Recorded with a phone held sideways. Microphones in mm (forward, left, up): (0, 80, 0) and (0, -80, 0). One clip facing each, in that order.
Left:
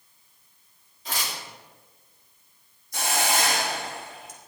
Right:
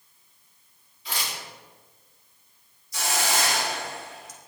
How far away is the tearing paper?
About 3 m.